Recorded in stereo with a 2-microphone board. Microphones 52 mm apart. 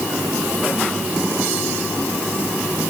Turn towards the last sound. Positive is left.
No sound to turn to.